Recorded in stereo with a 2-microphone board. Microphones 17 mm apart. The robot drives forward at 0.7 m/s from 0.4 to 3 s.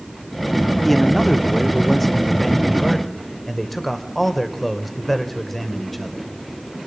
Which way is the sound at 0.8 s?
10° left (ahead or behind).